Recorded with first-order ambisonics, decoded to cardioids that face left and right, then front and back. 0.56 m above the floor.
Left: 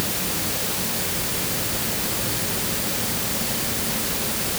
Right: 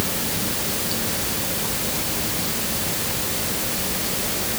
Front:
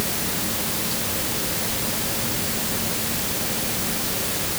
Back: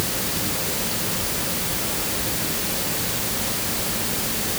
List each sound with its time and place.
Only background noise.